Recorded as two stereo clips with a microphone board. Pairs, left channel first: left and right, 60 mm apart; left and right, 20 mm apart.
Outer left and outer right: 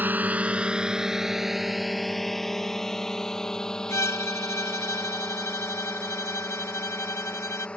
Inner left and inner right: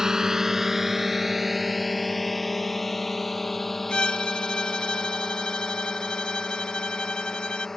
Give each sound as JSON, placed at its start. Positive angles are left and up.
{"t": 0.0, "sound": "a drone", "side_deg": -30}
{"t": 3.9, "sound": "a violin", "side_deg": 50}